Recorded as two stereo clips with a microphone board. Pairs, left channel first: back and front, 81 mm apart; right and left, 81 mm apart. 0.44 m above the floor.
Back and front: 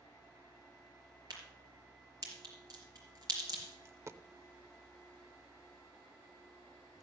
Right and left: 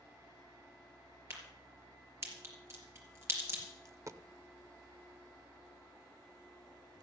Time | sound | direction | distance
1.3 | a crack | 35° left | 4 m
3.9 | a dropped coin | 45° left | 0.6 m